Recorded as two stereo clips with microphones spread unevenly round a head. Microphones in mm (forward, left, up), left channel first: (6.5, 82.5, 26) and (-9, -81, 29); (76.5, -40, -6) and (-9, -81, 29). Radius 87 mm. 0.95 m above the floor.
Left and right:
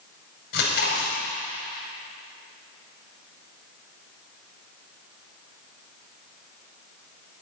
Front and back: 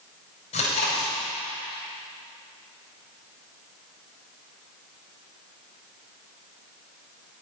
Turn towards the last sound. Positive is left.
turn(degrees=55)